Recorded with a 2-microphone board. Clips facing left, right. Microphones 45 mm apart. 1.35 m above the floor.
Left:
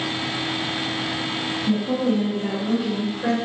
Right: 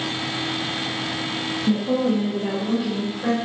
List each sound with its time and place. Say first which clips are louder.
1.7 s a woman speaking: right 1 dB; 60° right (ahead or behind), 0.8 m; by 3.4 s 10° left (ahead or behind), 0.9 m